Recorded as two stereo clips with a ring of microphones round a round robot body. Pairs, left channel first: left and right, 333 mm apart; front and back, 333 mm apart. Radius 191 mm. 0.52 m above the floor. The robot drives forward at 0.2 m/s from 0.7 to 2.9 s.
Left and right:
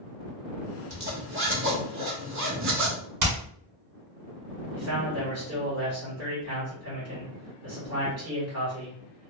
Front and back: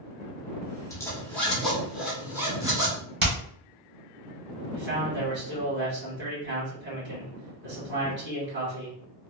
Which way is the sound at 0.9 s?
75° right.